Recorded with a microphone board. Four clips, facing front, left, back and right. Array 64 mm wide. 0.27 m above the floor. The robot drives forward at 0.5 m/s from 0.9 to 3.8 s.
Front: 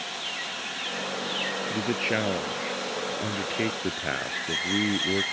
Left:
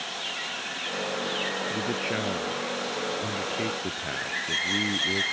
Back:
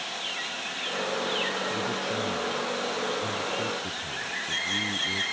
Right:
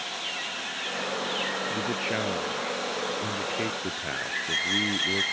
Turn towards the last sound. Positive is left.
turn(degrees=-5)